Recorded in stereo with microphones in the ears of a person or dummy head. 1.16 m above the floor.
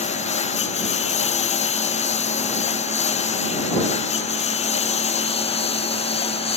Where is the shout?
I don't hear a shout.